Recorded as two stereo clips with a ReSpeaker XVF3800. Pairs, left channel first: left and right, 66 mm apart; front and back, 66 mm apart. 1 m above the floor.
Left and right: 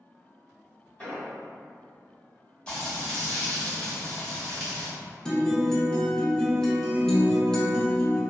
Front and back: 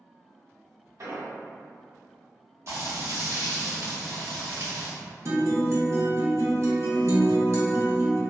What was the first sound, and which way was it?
An explosion, 160° left.